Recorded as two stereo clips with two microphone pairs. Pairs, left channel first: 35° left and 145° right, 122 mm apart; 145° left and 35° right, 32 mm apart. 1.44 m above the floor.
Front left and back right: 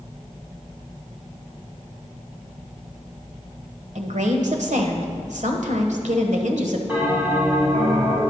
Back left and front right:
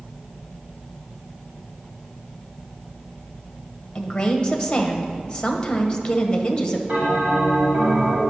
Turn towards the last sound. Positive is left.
turn(degrees=-70)